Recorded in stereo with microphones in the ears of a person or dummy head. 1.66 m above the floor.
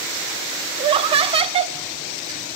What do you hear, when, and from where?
0.8 s laughter: 25° right (ahead or behind), 0.8 m